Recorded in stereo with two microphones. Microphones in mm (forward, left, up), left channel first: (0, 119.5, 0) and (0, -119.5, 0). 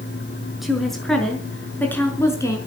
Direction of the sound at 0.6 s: Centre (ahead or behind).